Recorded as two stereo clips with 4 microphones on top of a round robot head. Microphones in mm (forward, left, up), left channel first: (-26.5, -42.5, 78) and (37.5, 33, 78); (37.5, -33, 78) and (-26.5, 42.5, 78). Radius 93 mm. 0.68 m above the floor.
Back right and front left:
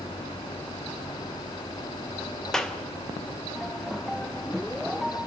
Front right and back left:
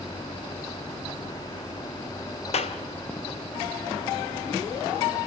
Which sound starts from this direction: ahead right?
A clap, at 2.5 s.